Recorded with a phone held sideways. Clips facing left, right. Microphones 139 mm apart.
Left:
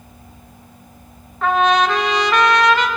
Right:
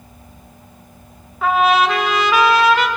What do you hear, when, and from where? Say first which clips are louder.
1.4 s a trumpet: right 1 dB; 5° right (ahead or behind), 1.8 m